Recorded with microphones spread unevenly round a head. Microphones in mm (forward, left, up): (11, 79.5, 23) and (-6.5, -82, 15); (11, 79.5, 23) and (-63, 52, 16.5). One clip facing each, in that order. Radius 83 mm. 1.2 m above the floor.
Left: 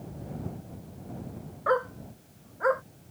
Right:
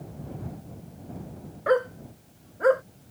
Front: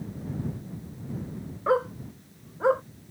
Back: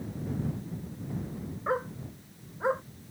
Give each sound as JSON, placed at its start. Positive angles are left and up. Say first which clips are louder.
{"t": 1.7, "sound": "a dog barking", "louder": "right 4 dB, front 7 dB", "azimuth_deg": -35}